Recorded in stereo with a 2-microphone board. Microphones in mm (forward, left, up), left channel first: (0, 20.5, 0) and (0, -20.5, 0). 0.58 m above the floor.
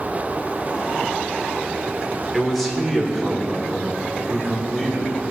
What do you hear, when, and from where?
2.3 s a man speaking: centre (ahead or behind), 2 m; by 5.1 s 5° left (ahead or behind), 3.5 m